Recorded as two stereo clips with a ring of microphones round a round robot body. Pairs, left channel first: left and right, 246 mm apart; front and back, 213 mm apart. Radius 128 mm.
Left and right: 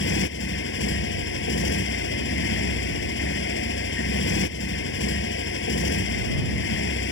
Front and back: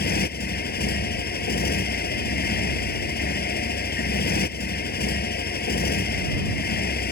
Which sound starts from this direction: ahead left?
A motorcycle, at 0.0 s.